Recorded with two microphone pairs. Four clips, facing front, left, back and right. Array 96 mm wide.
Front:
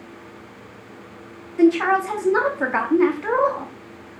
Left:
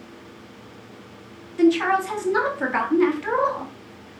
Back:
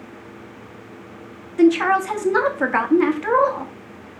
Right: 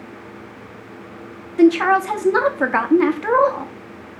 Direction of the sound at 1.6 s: 95° right.